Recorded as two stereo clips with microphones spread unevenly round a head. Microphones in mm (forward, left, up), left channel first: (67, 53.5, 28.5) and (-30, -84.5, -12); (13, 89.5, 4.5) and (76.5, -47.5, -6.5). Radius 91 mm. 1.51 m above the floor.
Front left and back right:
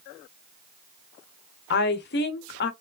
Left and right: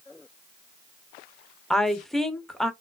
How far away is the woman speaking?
About 0.7 m.